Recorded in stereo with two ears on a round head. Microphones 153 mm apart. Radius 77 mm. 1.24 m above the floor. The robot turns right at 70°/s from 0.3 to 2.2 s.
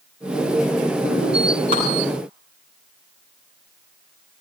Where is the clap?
35° right (ahead or behind), 9 m; by 1.8 s 40° right (ahead or behind), 9 m.